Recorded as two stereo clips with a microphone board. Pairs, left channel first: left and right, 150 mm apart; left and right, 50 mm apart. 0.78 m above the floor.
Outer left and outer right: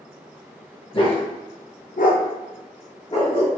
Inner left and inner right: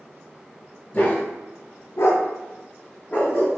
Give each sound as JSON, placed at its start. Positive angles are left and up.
{"t": 0.9, "sound": "a dog barking", "side_deg": 35, "distance_m": 0.7}